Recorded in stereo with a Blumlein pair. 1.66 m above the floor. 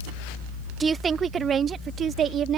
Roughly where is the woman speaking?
Ahead.